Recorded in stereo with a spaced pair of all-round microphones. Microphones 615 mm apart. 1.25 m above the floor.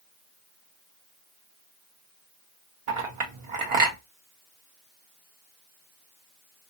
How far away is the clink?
About 0.8 m.